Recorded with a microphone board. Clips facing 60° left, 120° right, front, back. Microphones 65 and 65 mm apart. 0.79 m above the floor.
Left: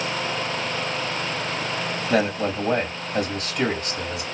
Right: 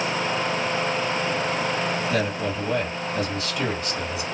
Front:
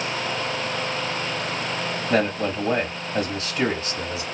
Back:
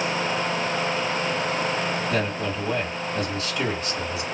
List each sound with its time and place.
2.1 s a man speaking: 45° left, 2 m